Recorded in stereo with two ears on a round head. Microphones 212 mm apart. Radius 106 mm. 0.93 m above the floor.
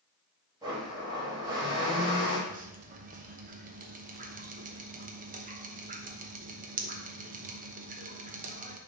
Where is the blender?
15° right (ahead or behind), 2 m.